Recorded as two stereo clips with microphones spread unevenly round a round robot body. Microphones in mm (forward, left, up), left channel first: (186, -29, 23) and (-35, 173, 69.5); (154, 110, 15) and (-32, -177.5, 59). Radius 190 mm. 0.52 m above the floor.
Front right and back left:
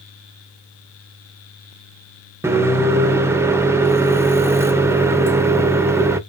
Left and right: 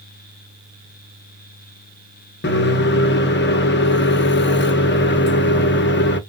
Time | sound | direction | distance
2.4 | a microwave | 45° left | 0.6 m